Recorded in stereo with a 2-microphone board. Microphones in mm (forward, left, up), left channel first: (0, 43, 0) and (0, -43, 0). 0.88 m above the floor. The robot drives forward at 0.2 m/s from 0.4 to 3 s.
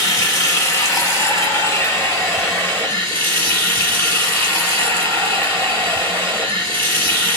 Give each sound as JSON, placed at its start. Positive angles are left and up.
{"t": 0.0, "sound": "running water", "side_deg": 35, "distance_m": 1.2}